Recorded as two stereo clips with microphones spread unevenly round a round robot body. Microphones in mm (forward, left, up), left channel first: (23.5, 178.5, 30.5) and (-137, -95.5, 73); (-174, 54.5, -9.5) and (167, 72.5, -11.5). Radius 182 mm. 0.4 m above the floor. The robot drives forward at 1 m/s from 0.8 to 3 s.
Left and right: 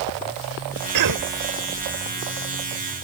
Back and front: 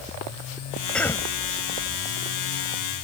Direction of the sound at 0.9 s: 90° right.